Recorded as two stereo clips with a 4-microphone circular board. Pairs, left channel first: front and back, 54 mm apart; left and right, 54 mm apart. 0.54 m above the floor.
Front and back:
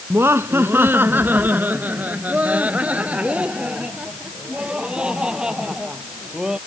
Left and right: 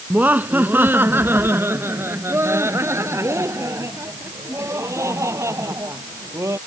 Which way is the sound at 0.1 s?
150° right.